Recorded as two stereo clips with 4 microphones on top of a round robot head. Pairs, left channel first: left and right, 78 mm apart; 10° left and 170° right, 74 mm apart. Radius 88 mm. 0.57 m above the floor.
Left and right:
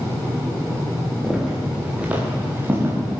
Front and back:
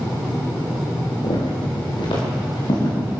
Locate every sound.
1.2 s footsteps: 5° right, 7 m; by 3.0 s 25° right, 7.5 m